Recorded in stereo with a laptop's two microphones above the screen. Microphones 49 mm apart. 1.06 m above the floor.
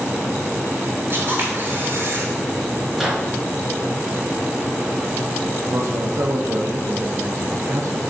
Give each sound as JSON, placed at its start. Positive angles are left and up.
{"t": 1.1, "sound": "a camera shutter", "side_deg": -55, "distance_m": 2.5}
{"t": 2.9, "sound": "a microwave", "side_deg": -5, "distance_m": 2.5}
{"t": 5.7, "sound": "a man speaking", "side_deg": -75, "distance_m": 0.7}